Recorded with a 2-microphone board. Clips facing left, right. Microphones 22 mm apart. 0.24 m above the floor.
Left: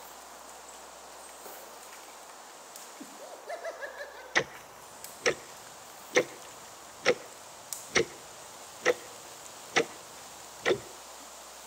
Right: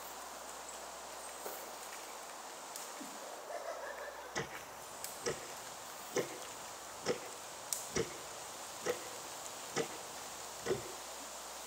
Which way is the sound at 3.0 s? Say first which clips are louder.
Left 2 dB; 75° left (ahead or behind).